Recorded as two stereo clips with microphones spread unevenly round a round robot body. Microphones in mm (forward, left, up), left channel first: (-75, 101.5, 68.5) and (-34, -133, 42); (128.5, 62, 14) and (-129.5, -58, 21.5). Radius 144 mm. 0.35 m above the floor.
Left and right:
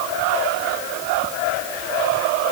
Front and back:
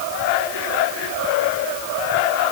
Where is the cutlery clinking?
No cutlery clinking in this recording.